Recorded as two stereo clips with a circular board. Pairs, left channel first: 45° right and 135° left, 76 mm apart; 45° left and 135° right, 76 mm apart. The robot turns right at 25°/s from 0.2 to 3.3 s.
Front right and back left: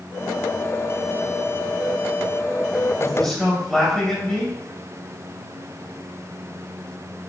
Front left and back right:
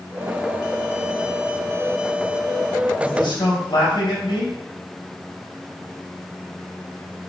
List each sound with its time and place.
3.0 s a man speaking: 30° left, 4 m; by 4.6 s 40° left, 4 m